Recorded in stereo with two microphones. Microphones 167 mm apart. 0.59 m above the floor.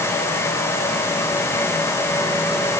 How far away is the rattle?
No rattle in this recording.